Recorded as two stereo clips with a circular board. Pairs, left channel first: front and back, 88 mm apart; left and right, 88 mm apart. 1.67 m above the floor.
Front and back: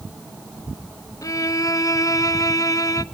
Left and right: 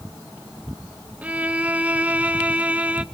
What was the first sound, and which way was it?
A violin, 25° right.